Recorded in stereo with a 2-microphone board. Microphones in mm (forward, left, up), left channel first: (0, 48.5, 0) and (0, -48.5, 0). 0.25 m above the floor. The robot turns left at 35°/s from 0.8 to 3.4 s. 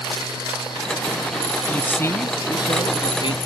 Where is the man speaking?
165° left; by 3.4 s 105° left.